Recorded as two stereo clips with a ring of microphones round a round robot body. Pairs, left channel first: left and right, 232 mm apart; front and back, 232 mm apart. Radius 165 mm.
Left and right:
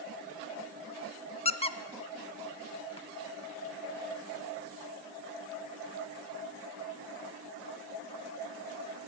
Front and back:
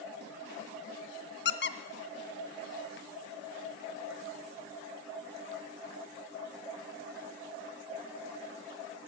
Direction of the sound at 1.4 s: 30° left.